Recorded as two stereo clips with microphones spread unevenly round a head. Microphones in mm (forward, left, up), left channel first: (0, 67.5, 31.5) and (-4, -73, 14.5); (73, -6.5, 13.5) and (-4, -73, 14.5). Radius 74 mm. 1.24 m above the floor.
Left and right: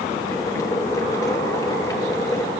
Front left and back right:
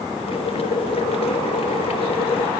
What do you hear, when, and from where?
0.3 s boiling: 20° left, 2.5 m